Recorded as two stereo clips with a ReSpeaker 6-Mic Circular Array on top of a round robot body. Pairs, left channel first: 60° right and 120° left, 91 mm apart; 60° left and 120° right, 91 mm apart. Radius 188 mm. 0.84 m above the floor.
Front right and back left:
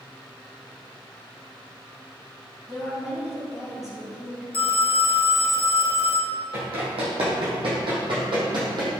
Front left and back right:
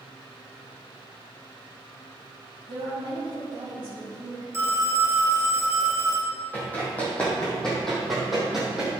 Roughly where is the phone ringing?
Ahead right.